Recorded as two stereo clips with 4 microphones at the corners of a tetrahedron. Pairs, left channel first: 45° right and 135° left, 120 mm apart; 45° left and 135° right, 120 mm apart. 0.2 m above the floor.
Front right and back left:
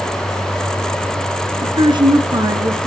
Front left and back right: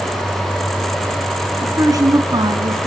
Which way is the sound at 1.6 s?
165° left.